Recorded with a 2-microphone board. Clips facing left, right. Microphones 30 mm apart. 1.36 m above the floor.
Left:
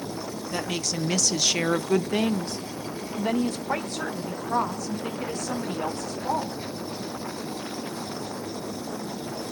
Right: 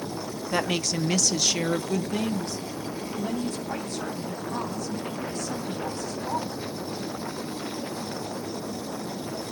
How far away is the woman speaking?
About 0.7 m.